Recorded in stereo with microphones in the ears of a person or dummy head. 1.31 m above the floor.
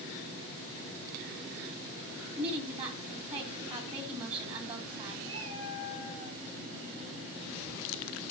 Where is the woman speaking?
35° right (ahead or behind), 3 m.